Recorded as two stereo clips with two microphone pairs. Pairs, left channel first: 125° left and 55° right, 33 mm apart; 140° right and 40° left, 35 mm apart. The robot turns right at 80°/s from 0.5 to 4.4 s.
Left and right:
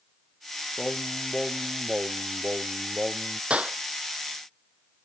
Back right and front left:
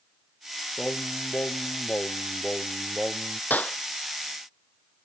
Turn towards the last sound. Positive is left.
turn(degrees=-40)